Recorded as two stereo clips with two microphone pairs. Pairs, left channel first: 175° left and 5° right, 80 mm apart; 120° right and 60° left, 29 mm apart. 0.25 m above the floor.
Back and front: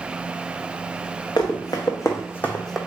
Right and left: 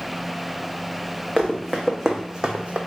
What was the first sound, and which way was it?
Running footsteps, 150° left.